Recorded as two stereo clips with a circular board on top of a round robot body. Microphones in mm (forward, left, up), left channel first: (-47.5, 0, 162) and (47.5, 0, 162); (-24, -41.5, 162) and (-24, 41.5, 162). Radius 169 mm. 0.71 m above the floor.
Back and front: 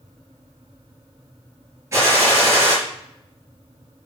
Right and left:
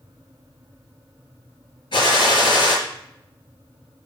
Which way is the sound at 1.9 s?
60° right.